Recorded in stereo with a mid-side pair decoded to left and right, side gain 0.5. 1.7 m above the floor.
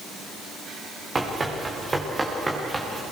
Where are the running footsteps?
25° right, 7.5 m; by 3.0 s 10° right, 8 m.